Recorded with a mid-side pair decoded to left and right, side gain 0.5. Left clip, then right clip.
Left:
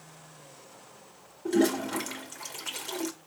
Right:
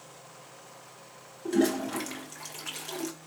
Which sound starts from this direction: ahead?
A toilet flushing, at 1.4 s.